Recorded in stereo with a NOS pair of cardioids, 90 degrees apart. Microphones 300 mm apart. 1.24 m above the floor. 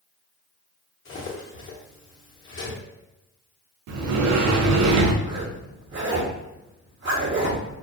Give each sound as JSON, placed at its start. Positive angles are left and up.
{"t": 1.1, "sound": "cutlery clinking", "azimuth_deg": 40, "distance_m": 1.1}
{"t": 3.9, "sound": "a sliding door", "azimuth_deg": -70, "distance_m": 0.6}
{"t": 5.2, "sound": "a zipper", "azimuth_deg": -35, "distance_m": 1.1}